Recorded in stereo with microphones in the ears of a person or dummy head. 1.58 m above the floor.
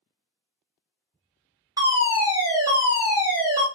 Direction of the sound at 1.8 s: 20° right (ahead or behind).